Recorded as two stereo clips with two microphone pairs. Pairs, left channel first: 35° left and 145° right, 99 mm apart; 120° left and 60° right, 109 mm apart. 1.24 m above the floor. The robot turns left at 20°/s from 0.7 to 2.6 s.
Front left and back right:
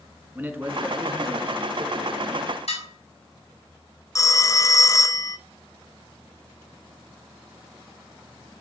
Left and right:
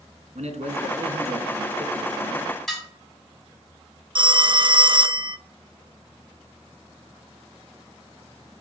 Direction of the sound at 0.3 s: 65° right.